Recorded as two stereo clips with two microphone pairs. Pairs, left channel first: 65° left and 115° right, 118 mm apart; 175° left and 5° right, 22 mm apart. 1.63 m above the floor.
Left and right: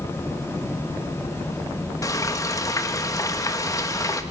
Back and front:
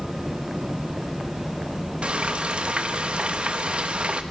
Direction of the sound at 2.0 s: 5° left.